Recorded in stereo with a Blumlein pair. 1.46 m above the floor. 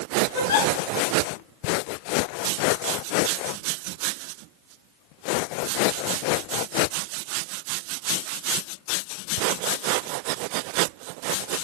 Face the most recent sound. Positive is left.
turn(degrees=60)